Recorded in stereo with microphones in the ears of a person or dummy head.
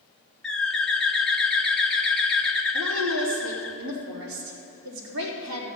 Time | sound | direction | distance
0.4 | a bird | 5° left (ahead or behind) | 0.7 m
2.7 | a woman speaking | 70° right (ahead or behind) | 3.5 m